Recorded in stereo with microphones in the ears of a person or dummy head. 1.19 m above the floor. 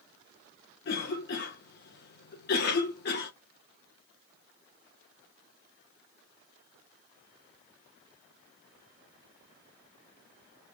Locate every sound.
0.8 s a cough: 50° left (ahead or behind), 1.1 m